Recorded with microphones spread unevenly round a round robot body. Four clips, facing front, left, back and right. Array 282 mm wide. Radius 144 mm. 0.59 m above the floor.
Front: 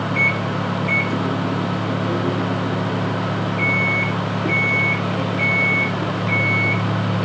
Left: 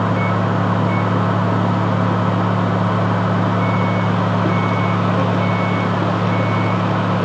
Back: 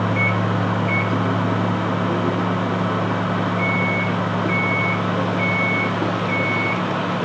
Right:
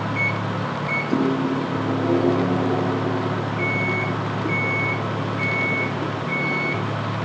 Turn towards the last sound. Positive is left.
turn(degrees=-85)